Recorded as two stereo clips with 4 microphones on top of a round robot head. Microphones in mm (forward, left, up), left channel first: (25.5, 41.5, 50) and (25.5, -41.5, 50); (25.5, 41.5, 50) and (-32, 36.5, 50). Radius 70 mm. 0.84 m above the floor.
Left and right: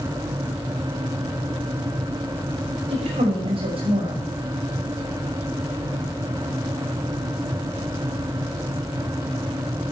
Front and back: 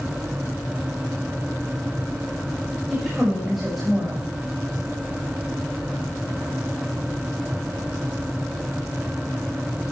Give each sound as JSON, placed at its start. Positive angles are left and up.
{"t": 2.9, "sound": "a woman speaking", "azimuth_deg": -85, "distance_m": 5.5}